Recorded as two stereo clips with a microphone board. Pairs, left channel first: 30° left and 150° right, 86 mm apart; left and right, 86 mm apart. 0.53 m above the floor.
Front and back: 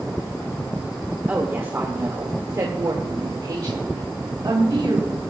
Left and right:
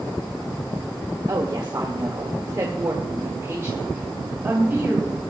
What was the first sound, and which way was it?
A woman speaking, 85° right.